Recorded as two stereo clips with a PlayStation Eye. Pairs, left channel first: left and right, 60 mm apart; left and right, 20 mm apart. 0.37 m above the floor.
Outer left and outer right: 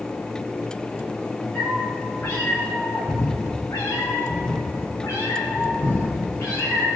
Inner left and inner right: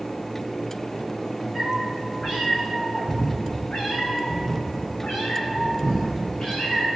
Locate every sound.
1.6 s a cat meowing: 30° left (ahead or behind), 4 m; by 6.9 s 50° left (ahead or behind), 6.5 m